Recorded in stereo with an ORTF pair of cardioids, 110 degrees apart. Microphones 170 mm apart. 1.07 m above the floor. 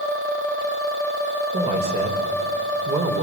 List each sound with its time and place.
1.5 s a man speaking: 40° right, 4.5 m; by 3.2 s 35° right, 3.5 m